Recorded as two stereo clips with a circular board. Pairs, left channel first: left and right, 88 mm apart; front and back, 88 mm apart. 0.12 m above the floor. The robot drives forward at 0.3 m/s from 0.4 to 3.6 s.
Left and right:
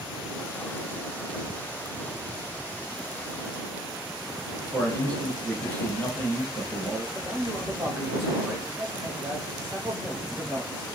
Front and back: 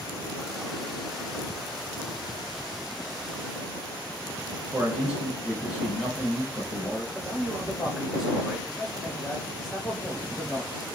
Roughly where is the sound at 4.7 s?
Behind left.